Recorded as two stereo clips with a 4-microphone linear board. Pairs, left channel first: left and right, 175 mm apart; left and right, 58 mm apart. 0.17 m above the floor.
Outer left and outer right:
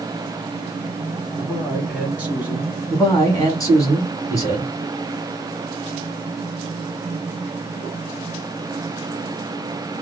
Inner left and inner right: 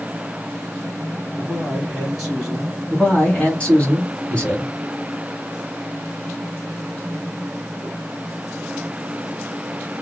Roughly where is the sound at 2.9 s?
Centre.